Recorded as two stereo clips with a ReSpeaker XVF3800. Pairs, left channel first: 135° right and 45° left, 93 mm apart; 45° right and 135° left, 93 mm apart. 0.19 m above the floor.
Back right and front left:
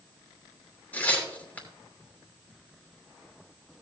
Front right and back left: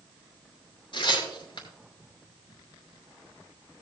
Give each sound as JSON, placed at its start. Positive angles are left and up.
{"t": 0.9, "sound": "tearing paper", "azimuth_deg": -65, "distance_m": 3.5}